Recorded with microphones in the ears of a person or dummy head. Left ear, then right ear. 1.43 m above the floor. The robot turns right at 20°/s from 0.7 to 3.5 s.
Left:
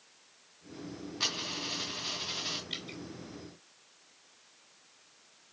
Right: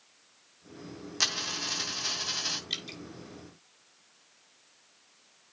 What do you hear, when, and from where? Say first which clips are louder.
1.2 s a dropped coin: right 4 dB; 60° right (ahead or behind), 2.5 m; by 2.6 s 65° right (ahead or behind), 2.5 m
2.7 s dripping: right 4 dB; 50° right (ahead or behind), 2 m; by 3.0 s 45° right (ahead or behind), 2 m